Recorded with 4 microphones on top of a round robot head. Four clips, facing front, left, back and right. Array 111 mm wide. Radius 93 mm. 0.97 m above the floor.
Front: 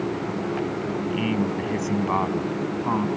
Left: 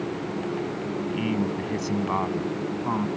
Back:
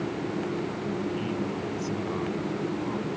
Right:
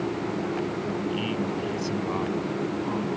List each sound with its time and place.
1.1 s a man speaking: 30° left